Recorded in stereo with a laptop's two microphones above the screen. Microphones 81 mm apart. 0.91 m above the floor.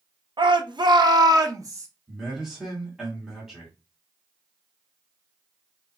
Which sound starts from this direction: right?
A shout, at 0.4 s.